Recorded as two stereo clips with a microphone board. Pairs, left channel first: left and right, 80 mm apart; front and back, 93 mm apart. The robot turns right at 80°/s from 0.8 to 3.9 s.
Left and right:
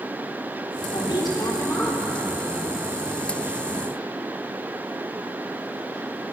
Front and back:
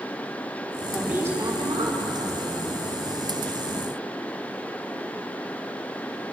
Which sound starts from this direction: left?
A woman speaking, at 0.9 s.